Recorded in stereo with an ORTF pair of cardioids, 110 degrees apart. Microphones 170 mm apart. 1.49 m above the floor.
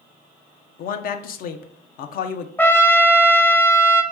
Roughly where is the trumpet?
Ahead.